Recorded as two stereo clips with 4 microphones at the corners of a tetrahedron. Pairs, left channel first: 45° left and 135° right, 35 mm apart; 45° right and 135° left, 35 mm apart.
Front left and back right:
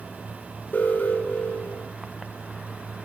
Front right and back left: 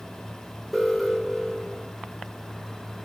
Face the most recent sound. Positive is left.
turn(degrees=45)